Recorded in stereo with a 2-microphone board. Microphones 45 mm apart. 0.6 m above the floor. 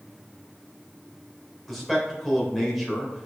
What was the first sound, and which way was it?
A man speaking, 5° right (ahead or behind).